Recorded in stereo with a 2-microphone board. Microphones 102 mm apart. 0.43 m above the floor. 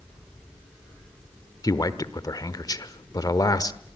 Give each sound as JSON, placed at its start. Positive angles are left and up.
{"t": 1.6, "sound": "a man speaking", "side_deg": 40, "distance_m": 1.1}